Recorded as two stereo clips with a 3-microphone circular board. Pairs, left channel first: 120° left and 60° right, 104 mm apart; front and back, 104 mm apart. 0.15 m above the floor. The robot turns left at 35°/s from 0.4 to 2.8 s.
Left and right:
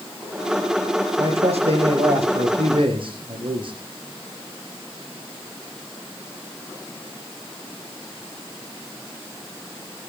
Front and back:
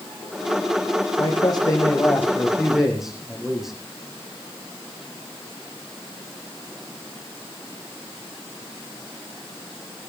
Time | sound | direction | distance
1.2 | a man speaking | 35° right | 6 m